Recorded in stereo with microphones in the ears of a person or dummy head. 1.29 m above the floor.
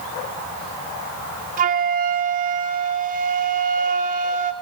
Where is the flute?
45° right (ahead or behind), 1.4 m.